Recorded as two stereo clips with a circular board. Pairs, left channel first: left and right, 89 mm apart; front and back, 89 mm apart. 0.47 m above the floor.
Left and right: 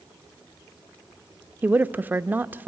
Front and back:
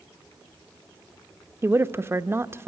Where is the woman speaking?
145° right, 0.8 m.